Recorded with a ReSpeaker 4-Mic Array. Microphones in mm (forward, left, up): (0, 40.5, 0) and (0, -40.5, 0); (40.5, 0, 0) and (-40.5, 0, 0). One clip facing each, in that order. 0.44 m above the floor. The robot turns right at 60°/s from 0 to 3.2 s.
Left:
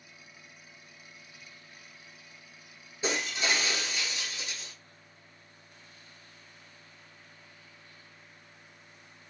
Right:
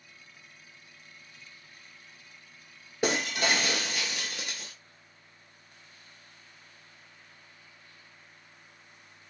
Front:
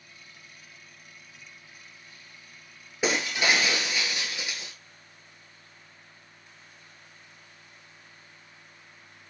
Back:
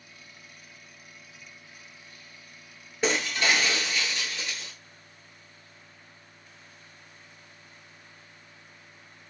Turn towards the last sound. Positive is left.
turn(degrees=-75)